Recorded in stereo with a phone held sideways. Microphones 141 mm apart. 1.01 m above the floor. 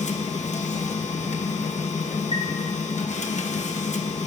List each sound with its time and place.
0.0 s a machine running: 55° left (ahead or behind), 0.9 m
2.3 s a chime: 45° left (ahead or behind), 1.3 m